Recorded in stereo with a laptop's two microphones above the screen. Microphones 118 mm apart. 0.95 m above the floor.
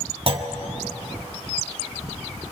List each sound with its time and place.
0.3 s a clunk: 50° right (ahead or behind), 1.2 m